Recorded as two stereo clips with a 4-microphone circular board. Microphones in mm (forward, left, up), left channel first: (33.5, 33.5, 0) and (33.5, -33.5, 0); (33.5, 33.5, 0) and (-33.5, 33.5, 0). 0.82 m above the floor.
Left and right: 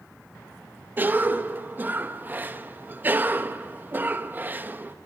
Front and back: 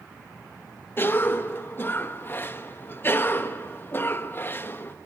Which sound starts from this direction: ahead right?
A cough, at 1.0 s.